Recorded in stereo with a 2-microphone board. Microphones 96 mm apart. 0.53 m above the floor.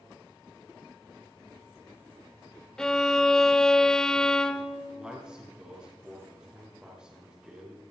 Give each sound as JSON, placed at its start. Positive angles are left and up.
{"t": 2.8, "sound": "a violin", "side_deg": 5, "distance_m": 0.8}
{"t": 5.0, "sound": "a man speaking", "side_deg": -10, "distance_m": 5.5}